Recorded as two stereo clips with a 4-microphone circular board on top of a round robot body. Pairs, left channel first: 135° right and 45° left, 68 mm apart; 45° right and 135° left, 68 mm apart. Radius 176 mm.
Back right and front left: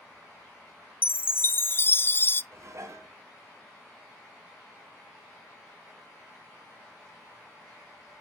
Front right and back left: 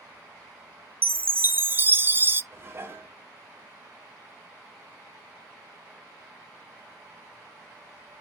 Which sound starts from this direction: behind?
A chime, at 1.0 s.